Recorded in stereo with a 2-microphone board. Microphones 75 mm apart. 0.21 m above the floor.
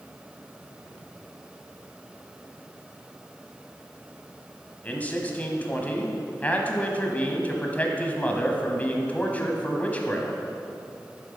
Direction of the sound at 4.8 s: 20° left (ahead or behind).